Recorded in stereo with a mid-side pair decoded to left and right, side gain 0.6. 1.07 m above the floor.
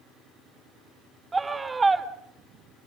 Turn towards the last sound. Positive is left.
turn(degrees=-20)